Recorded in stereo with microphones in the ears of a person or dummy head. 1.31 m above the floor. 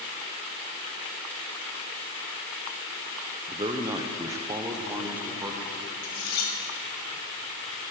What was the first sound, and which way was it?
A man speaking, 20° right (ahead or behind).